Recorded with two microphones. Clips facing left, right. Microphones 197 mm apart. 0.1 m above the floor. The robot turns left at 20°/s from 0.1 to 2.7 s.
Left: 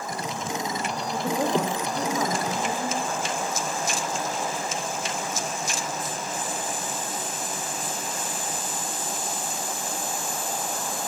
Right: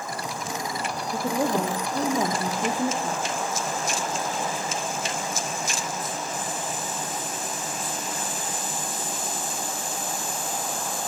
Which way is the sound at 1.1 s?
5° right.